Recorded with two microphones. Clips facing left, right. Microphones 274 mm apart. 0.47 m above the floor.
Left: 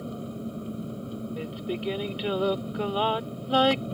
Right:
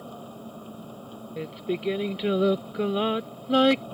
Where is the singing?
25° right (ahead or behind).